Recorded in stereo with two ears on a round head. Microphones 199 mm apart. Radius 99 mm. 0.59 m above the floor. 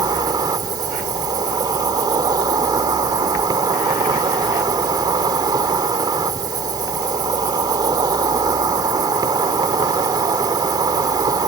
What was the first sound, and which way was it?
An insect, 20° right (ahead or behind).